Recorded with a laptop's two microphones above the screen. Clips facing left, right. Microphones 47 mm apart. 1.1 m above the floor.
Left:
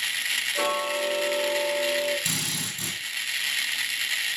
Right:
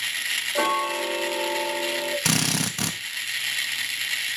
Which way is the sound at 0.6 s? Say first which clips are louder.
Right 4 dB; 30° right (ahead or behind).